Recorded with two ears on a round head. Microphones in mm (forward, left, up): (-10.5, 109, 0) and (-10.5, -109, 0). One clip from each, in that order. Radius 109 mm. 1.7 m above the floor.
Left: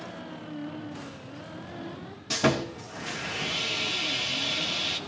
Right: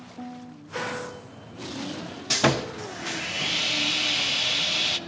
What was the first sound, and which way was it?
Sawing, 25° right (ahead or behind).